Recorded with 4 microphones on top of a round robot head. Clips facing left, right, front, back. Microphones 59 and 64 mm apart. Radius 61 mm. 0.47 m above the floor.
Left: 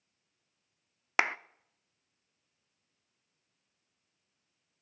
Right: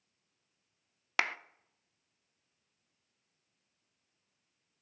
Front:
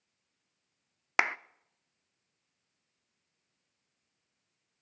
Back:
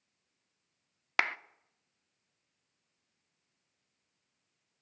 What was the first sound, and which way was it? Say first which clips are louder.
A clap: left 3 dB, front 2 dB; 55° left.